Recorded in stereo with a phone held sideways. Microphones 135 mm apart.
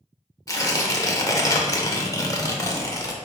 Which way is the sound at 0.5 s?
25° left (ahead or behind).